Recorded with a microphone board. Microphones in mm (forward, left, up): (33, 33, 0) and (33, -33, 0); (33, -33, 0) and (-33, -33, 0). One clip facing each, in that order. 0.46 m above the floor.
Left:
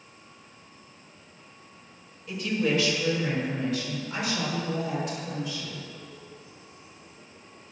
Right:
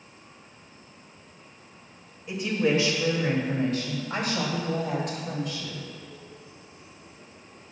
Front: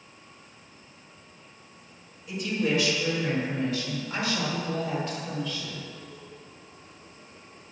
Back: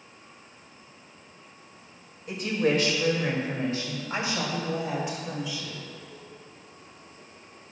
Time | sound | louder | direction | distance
2.3 | a woman speaking | right 2 dB, back 2 dB | 155° right | 2 m